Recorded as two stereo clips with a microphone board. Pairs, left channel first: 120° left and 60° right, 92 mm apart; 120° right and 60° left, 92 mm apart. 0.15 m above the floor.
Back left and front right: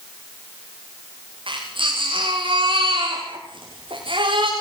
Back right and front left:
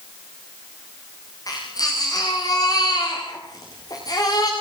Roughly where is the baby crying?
Right.